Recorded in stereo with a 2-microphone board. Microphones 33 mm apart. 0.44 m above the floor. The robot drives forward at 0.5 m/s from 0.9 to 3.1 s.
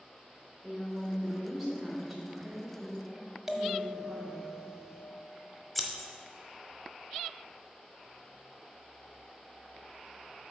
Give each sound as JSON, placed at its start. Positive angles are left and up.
{"t": 0.6, "sound": "a woman speaking", "side_deg": -10, "distance_m": 1.0}
{"t": 3.5, "sound": "a bell", "side_deg": -5, "distance_m": 0.7}
{"t": 5.8, "sound": "scissors", "side_deg": 10, "distance_m": 0.9}